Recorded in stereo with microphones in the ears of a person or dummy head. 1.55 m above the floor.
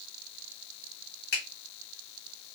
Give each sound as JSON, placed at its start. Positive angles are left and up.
{"t": 1.3, "sound": "a finger snap", "side_deg": 55, "distance_m": 1.8}